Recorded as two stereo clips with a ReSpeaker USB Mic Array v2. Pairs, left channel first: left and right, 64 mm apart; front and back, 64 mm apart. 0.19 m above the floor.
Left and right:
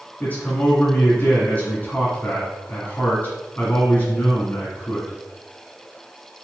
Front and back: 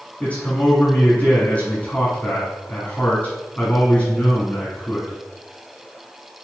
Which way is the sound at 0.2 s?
50° left.